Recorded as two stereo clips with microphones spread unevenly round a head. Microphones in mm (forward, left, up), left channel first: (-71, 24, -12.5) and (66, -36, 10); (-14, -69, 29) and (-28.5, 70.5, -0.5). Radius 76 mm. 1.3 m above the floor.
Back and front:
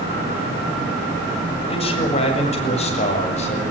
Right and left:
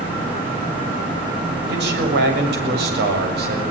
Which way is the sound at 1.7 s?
100° left.